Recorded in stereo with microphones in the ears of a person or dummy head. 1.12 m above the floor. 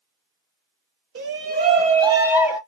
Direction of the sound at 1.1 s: 60° right (ahead or behind).